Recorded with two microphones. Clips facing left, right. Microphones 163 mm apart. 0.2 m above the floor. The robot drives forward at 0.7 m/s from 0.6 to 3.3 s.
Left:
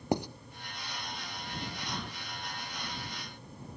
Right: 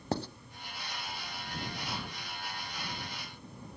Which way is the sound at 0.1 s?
15° left (ahead or behind).